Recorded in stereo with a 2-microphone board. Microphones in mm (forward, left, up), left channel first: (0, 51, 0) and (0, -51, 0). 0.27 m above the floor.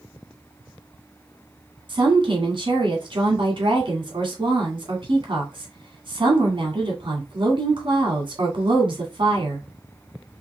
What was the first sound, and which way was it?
A woman speaking, 50° right (ahead or behind).